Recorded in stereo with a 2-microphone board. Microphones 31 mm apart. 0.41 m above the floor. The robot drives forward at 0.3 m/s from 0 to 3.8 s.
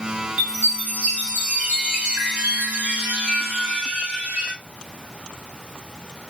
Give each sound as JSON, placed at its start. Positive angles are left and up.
{"t": 0.4, "sound": "a chime", "side_deg": -60, "distance_m": 4.0}